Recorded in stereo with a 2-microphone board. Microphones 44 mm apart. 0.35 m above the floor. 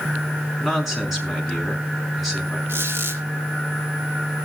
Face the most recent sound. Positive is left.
turn(degrees=-65)  # may be behind; listen again after turning